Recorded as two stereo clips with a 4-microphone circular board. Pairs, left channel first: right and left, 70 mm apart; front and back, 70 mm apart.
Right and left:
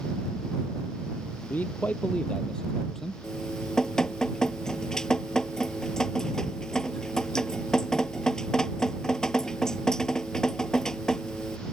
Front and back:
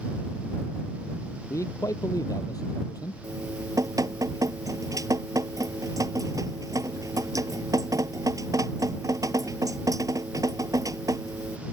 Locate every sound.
1.5 s a man speaking: 30° right; by 3.1 s 5° right
3.2 s dripping: 170° right